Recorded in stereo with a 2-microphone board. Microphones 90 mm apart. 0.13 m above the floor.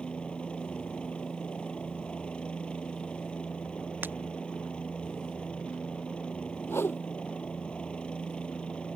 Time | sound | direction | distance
0.0 | a helicopter | 10° left (ahead or behind) | ?
4.0 | breaking glass | 20° right (ahead or behind) | ?
6.7 | a whoosh | 25° left (ahead or behind) | ?